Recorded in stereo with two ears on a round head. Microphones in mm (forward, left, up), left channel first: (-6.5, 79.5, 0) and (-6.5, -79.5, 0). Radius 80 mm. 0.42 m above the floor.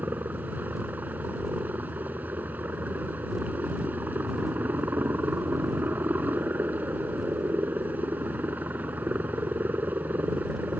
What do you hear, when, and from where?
0.0 s a helicopter: 10° right (ahead or behind)